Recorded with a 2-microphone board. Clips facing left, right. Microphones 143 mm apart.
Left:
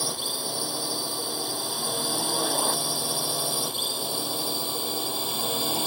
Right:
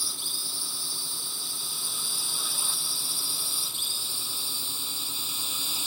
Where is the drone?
60° left (ahead or behind); by 5.9 s 55° left (ahead or behind).